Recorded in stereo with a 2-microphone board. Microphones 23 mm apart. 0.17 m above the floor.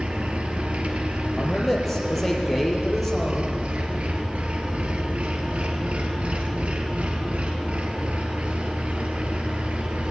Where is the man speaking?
10° left (ahead or behind), 5 m.